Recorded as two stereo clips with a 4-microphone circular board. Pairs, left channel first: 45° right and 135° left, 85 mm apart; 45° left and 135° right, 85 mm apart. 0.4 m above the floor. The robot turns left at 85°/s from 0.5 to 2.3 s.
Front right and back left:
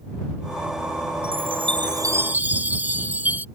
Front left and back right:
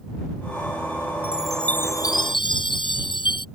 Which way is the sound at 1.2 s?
155° left.